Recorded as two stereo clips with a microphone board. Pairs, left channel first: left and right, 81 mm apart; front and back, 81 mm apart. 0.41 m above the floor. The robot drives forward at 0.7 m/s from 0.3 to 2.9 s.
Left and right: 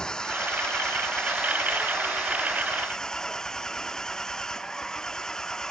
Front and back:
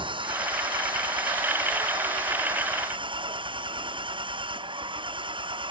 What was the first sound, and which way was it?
An engine running, 170° left.